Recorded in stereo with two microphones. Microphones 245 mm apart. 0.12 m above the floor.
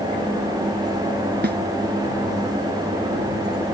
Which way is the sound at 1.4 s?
45° right (ahead or behind).